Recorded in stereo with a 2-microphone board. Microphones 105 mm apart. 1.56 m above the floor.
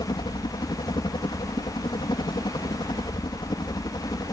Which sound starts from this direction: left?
A helicopter, at 0.0 s.